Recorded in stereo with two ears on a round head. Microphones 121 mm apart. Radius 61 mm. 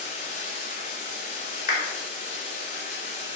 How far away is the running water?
About 3 m.